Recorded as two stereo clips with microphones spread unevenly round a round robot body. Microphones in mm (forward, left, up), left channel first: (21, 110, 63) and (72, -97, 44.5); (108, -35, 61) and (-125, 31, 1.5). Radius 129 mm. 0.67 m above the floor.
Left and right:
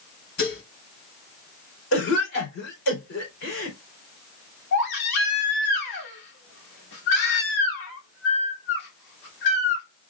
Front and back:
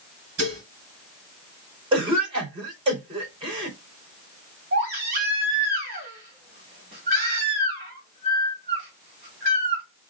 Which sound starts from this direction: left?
A cough, at 1.9 s.